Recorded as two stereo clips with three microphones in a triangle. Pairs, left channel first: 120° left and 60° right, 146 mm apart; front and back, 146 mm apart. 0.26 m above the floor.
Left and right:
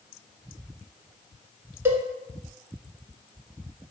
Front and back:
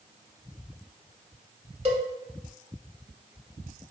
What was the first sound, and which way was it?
A cowbell, 130° right.